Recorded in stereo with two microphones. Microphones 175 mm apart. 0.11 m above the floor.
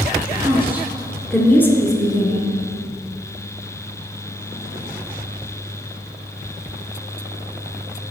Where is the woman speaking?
20° right (ahead or behind), 1.7 m; by 2.5 s 30° left (ahead or behind), 1.7 m.